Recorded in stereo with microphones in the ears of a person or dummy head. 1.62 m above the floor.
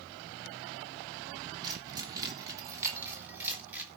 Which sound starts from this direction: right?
Keys jangling, at 1.6 s.